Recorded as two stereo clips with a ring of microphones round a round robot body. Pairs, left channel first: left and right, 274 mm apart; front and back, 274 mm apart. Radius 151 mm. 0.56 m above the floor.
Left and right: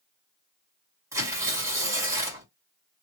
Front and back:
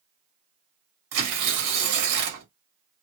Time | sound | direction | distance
1.1 | tearing paper | 170° right | 1.8 m